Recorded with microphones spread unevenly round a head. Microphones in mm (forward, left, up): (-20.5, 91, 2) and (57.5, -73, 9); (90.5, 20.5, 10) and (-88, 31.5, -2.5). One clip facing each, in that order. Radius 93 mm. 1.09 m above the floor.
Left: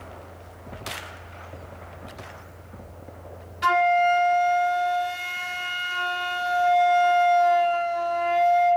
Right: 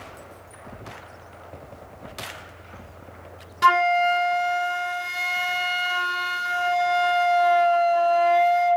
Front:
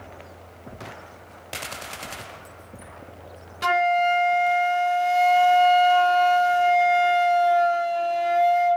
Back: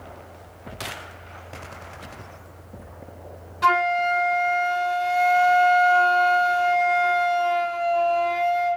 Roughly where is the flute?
Ahead right.